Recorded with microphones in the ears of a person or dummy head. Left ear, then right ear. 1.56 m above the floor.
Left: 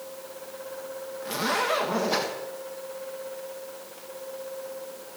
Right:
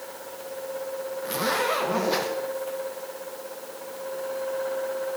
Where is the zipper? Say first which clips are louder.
Right 1 dB; centre (ahead or behind), 1.2 m.